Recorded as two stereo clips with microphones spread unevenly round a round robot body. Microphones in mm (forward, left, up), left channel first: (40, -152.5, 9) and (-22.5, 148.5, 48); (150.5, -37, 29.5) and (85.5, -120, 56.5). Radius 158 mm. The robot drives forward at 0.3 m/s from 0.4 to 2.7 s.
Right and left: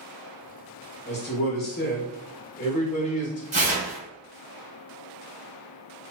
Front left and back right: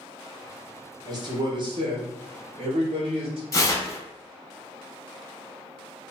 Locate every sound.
1.1 s a man speaking: 85° right, 1.0 m; by 3.4 s 125° right, 1.1 m
3.5 s tearing paper: 40° left, 0.9 m